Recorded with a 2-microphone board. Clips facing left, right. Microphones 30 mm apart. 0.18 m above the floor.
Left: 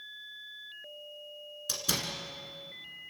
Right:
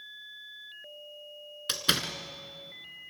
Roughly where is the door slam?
Right.